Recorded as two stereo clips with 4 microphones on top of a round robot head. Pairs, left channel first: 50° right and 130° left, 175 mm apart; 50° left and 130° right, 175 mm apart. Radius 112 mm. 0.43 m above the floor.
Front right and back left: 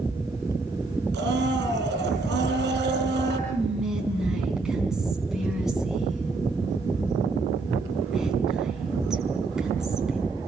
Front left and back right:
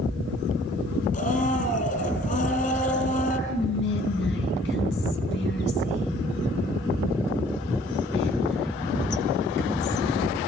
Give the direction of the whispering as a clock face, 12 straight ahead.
11 o'clock.